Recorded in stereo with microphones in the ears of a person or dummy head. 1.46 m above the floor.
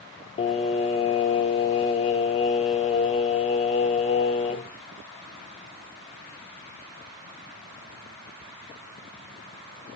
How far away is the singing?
About 0.6 m.